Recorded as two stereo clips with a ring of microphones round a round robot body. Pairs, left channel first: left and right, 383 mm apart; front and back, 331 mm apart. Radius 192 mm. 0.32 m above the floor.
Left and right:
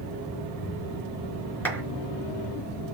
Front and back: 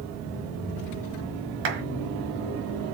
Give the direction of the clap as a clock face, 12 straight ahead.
6 o'clock.